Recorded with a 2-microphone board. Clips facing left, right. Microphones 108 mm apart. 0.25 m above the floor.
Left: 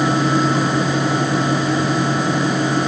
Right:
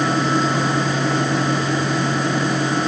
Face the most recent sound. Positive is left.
No sound to turn to.